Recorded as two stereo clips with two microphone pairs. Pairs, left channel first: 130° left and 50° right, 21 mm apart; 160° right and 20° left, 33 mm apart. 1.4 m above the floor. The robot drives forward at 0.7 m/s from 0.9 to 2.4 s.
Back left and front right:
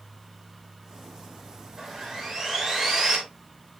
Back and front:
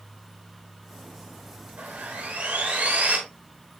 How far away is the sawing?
About 7 m.